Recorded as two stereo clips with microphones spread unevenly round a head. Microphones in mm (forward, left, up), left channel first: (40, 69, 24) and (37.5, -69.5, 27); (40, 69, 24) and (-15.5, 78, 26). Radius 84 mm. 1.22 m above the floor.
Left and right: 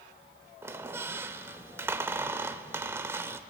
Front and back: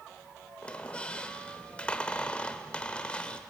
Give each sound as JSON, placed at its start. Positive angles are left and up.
{"t": 0.6, "sound": "a squeak", "azimuth_deg": -60, "distance_m": 0.9}